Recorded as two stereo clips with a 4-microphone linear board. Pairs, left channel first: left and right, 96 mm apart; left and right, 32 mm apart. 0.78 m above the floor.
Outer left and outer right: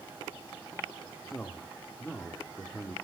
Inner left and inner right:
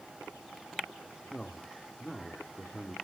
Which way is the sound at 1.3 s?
10° left (ahead or behind).